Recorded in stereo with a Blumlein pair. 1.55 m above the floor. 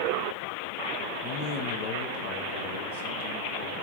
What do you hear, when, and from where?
1.2 s a man speaking: 35° left, 0.8 m; by 3.9 s 60° left, 2.5 m